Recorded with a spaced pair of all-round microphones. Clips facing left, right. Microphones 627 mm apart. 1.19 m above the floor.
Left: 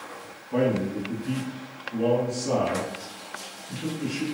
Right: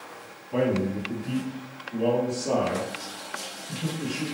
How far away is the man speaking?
About 1.7 m.